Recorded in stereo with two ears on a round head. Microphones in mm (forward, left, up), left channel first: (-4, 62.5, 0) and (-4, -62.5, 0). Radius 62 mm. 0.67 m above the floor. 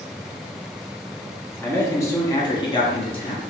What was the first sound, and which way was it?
A man speaking, 15° left (ahead or behind).